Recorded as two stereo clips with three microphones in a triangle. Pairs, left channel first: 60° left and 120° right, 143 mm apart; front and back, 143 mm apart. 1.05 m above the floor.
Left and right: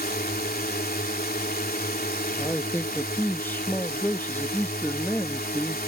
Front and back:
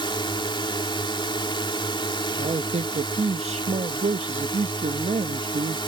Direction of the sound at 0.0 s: 60° left.